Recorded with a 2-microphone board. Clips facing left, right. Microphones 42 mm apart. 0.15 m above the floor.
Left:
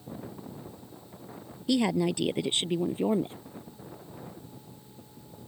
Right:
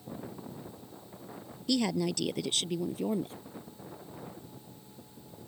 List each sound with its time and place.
1.7 s a woman speaking: 20° left (ahead or behind); by 3.4 s 30° left (ahead or behind)